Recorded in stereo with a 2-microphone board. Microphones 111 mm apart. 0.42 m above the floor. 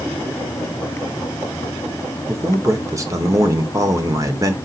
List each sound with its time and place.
2.3 s a man speaking: 30° right (ahead or behind), 0.8 m